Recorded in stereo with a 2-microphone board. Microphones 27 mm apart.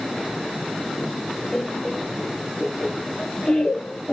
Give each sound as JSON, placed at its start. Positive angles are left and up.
{"t": 1.5, "sound": "laughter", "side_deg": 10, "distance_m": 2.0}